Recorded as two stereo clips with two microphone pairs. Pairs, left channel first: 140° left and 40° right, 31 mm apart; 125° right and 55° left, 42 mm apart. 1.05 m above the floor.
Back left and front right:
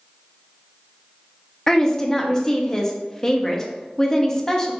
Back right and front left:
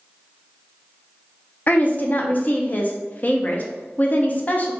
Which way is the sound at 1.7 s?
155° right.